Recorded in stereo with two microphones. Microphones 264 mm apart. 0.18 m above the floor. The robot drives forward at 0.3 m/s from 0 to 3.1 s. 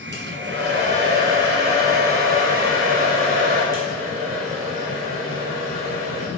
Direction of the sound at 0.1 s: 45° right (ahead or behind).